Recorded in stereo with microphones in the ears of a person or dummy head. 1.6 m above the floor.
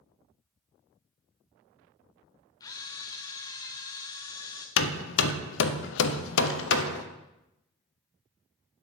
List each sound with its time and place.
2.6 s a camera shutter: 20° left (ahead or behind), 0.7 m
4.8 s hammering: 75° left (ahead or behind), 0.6 m